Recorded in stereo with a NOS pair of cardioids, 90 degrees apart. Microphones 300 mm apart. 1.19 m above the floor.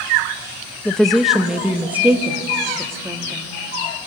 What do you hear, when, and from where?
0.8 s a woman speaking: 5° left, 1.1 m; by 3.4 s 10° right, 2.5 m